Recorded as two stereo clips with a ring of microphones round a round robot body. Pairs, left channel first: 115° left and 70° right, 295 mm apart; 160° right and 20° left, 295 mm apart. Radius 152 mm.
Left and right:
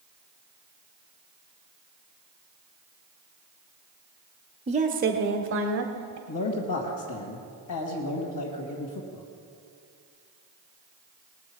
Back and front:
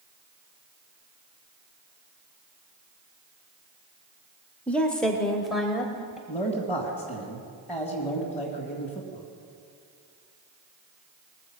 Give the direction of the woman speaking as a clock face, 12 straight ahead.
3 o'clock.